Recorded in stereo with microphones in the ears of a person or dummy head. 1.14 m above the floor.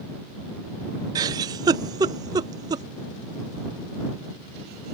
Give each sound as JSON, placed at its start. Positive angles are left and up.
{"t": 1.1, "sound": "a giggle", "side_deg": -20}